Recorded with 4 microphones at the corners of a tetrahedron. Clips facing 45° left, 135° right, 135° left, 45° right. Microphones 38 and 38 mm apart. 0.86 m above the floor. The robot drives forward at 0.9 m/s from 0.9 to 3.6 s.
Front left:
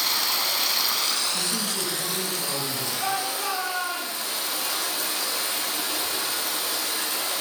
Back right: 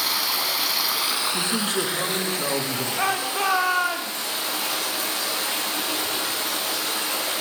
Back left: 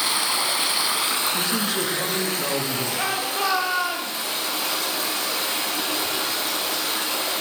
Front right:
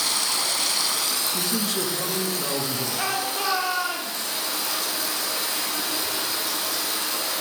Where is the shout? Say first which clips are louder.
Back right 5 dB, back left 1 dB; 140° right, 1.3 m; by 4.3 s 155° right, 1.8 m.